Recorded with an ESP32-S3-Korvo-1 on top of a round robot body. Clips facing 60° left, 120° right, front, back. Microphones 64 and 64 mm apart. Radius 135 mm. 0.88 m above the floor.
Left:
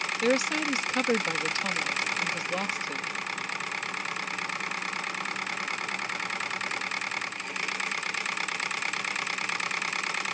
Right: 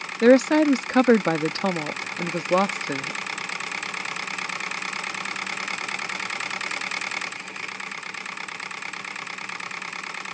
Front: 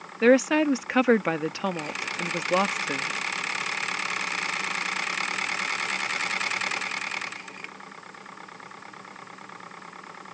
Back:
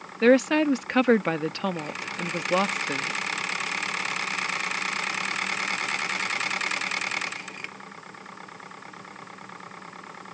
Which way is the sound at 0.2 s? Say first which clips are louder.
Right 12 dB, even; 85° right.